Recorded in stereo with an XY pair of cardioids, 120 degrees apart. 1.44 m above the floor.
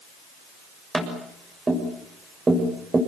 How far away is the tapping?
About 7 m.